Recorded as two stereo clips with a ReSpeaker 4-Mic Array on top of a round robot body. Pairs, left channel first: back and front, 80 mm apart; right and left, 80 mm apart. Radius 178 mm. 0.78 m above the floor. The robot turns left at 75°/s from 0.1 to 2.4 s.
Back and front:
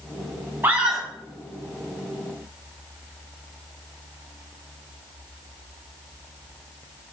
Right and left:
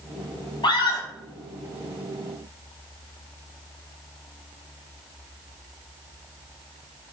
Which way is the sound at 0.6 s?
65° right.